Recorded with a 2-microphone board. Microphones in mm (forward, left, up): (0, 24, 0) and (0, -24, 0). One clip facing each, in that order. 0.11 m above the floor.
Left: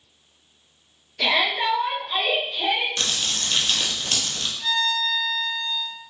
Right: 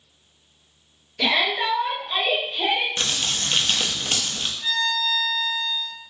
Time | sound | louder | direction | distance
1.2 | a shout | even | centre (ahead or behind) | 1.6 m
3.0 | crumpling | right 1 dB | 25° right (ahead or behind) | 0.7 m
4.6 | a violin | left 1 dB | 60° left (ahead or behind) | 1.1 m